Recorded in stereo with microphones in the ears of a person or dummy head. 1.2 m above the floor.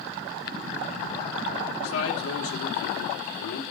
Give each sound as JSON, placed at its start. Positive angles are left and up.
{"t": 1.8, "sound": "a man speaking", "side_deg": 80, "distance_m": 2.5}